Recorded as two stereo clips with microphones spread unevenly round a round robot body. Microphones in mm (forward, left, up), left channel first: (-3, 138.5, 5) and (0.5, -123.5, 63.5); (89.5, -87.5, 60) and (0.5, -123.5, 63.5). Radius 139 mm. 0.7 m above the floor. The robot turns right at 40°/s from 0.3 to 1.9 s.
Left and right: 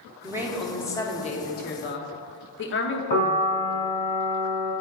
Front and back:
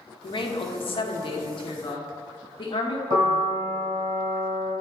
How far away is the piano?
About 2.5 m.